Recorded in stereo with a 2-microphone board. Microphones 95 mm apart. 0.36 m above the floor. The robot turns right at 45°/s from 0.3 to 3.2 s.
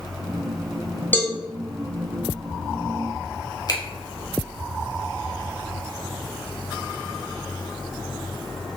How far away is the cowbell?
About 0.7 m.